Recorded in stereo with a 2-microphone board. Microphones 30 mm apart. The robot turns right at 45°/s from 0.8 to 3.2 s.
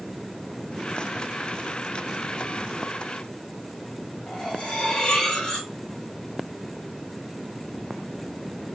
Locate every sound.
4.3 s cutlery clinking: 35° left (ahead or behind), 1.1 m